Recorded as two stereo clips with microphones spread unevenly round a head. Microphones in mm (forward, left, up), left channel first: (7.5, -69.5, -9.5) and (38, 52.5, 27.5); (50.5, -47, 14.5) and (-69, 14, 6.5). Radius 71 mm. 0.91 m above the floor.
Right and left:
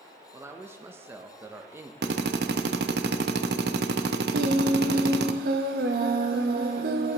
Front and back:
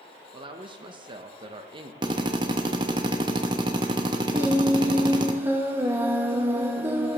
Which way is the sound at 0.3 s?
160° left.